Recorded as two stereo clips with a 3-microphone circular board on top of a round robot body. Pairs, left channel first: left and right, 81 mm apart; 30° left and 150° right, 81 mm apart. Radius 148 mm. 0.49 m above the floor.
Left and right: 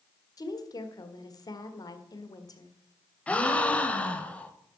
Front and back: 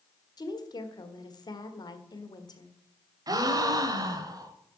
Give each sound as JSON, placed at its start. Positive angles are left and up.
{"t": 0.4, "sound": "a woman speaking", "azimuth_deg": 55, "distance_m": 1.8}
{"t": 3.3, "sound": "a gasp", "azimuth_deg": 165, "distance_m": 1.2}